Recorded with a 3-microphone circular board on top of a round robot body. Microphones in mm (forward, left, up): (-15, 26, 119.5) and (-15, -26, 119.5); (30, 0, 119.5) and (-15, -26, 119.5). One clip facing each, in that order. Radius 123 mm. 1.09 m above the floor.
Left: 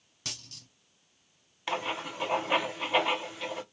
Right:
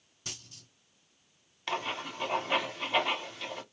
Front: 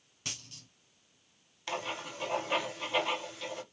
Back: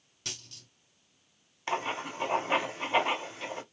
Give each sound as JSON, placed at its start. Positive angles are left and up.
{"t": 0.2, "sound": "a dropped coin", "azimuth_deg": 110, "distance_m": 1.8}
{"t": 1.7, "sound": "writing", "azimuth_deg": 170, "distance_m": 0.7}